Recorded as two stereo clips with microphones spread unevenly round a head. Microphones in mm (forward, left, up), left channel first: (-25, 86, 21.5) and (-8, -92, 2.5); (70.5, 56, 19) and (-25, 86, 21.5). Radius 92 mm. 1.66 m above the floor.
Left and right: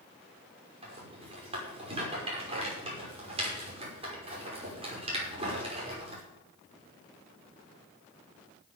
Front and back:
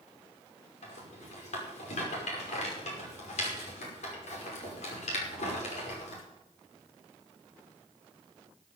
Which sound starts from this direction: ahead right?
A rattle, at 0.8 s.